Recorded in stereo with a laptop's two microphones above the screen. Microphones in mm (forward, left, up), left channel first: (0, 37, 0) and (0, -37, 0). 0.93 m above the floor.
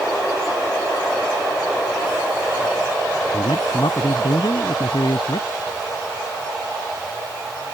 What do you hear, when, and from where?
3.3 s a man speaking: 65° left (ahead or behind)